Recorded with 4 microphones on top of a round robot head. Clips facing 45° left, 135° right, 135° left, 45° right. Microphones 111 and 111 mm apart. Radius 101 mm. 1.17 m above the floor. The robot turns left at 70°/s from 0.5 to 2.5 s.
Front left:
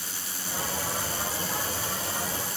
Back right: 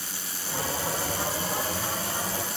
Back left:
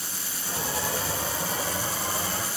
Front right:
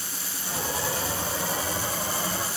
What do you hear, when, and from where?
Only background noise.